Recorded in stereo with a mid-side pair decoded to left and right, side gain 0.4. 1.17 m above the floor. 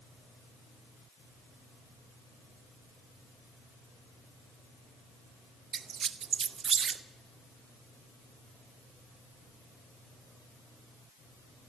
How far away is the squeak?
About 0.7 m.